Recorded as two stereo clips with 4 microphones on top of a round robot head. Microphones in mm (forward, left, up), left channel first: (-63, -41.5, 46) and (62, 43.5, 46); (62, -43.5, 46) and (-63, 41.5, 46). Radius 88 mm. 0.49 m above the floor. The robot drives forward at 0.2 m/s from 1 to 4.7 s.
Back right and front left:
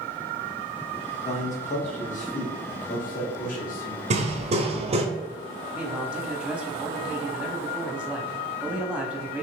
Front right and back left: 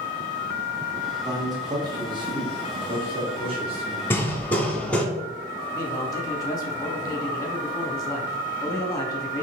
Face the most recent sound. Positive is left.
turn(degrees=-40)